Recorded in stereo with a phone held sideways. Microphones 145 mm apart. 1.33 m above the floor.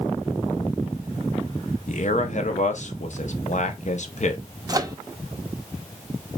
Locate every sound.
1.9 s a man speaking: 55° left (ahead or behind), 0.7 m
4.7 s a microwave: 25° right (ahead or behind), 0.5 m